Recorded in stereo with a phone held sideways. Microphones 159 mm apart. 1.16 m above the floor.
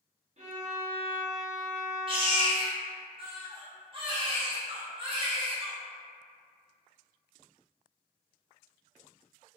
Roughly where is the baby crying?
Right.